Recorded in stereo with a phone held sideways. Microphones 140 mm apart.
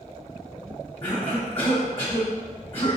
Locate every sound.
1.0 s a cough: 45° left (ahead or behind), 1.0 m